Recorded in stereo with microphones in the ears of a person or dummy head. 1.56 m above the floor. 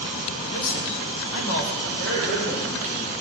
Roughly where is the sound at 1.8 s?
Left.